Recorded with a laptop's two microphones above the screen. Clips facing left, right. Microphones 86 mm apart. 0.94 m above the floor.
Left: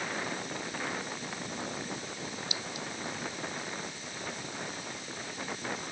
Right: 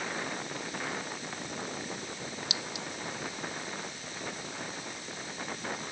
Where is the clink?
80° right.